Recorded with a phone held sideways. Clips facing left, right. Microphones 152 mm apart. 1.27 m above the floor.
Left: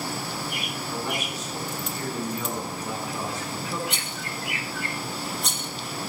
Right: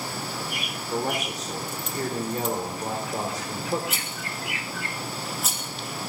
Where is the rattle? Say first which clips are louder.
Left 1 dB; 5° right (ahead or behind), 2.5 m.